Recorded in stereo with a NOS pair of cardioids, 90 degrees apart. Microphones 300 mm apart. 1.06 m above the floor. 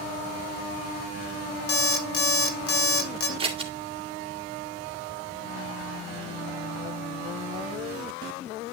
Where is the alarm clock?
50° left, 1.8 m.